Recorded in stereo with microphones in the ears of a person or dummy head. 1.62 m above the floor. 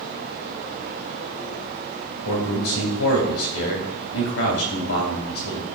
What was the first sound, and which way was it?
A man speaking, 80° left.